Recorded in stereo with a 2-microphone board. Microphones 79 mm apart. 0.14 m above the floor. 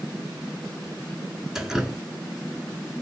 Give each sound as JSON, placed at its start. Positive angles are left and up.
{"t": 1.6, "sound": "dripping", "side_deg": -5, "distance_m": 0.6}